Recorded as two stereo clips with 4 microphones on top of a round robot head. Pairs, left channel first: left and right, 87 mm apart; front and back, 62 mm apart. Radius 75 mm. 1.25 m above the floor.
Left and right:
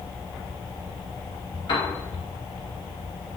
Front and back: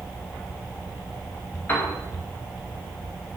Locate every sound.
1.7 s a piano: 60° left, 2 m